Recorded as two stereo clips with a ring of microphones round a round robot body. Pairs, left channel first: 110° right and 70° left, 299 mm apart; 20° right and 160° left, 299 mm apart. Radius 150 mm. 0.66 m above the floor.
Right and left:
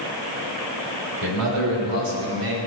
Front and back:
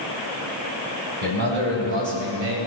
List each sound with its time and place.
1.2 s a man speaking: 100° left, 5 m; by 2.6 s 115° left, 4.5 m